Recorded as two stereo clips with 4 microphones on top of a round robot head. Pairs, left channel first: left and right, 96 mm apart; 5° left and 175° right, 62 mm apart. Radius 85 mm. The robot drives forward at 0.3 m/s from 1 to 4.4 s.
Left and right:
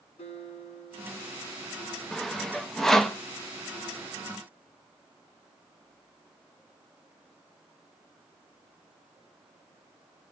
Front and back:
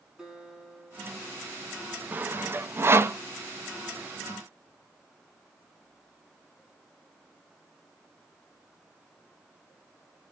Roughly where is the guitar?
Left.